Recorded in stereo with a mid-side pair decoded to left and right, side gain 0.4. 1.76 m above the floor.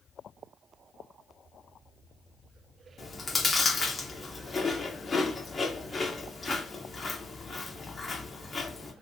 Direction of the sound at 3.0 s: 30° left.